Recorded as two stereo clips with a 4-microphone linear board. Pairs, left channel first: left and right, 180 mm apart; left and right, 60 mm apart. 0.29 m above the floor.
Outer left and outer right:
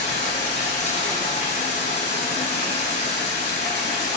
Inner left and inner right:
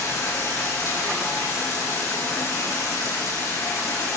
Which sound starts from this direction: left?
Running water, at 0.0 s.